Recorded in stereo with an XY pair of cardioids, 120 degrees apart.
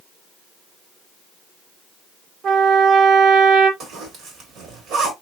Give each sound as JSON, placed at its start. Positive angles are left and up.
{"t": 2.4, "sound": "a trumpet", "azimuth_deg": -50, "distance_m": 1.0}
{"t": 3.8, "sound": "a zipper", "azimuth_deg": -65, "distance_m": 1.6}